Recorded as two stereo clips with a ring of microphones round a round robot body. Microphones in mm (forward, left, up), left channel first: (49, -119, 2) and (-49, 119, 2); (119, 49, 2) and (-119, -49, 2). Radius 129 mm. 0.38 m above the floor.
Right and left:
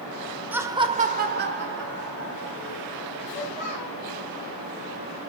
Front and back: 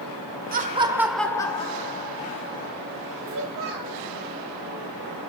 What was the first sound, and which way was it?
Laughter, 170° right.